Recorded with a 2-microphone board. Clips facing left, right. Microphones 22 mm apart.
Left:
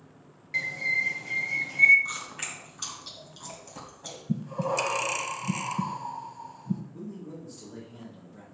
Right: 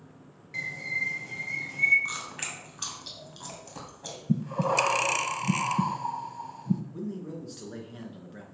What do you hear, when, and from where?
0.5 s a bird: 25° left (ahead or behind), 0.7 m
2.0 s chewing: 10° right (ahead or behind), 1.8 m
4.3 s breathing: 20° right (ahead or behind), 0.6 m
6.9 s a man speaking: 65° right (ahead or behind), 3 m